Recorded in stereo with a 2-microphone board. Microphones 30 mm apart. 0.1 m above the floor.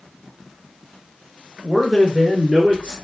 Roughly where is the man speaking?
Centre.